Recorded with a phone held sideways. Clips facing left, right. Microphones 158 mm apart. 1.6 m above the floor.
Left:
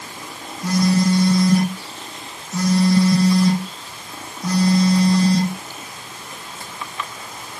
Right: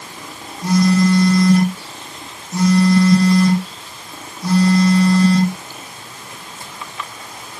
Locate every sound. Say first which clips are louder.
0.6 s a phone buzzing: right 3 dB; 80° right, 4.5 m